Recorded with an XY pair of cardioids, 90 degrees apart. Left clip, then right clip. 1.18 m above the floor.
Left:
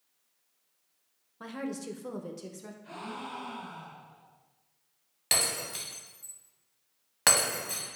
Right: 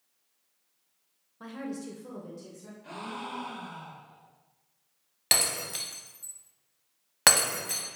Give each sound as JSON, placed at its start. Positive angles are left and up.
{"t": 1.4, "sound": "a woman speaking", "azimuth_deg": 25, "distance_m": 0.6}
{"t": 2.8, "sound": "a gasp", "azimuth_deg": -55, "distance_m": 1.0}
{"t": 5.3, "sound": "breaking glass", "azimuth_deg": -45, "distance_m": 1.1}